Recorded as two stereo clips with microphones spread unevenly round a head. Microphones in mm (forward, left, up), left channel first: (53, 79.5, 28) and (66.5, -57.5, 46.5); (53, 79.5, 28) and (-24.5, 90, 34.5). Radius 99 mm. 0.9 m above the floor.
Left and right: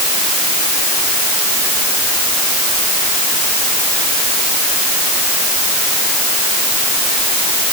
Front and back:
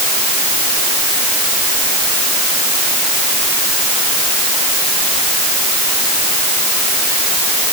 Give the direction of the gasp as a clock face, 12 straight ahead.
No gasp in this recording.